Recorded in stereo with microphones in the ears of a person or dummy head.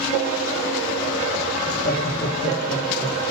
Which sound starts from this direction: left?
Laughter, at 1.6 s.